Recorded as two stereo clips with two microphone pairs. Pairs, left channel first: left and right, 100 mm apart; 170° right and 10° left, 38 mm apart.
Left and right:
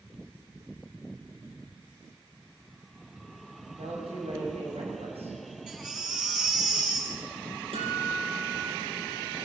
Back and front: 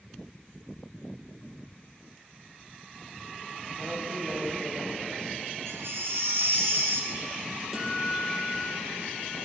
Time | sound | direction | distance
3.7 | a woman speaking | 100° right | 7 m
5.7 | a baby crying | 5° right | 6 m
7.7 | a guitar | 75° right | 8 m